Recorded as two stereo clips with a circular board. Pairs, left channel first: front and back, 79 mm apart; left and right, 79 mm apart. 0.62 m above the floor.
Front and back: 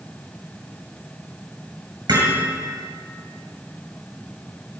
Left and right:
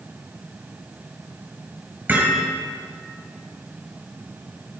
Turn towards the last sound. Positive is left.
turn(degrees=-160)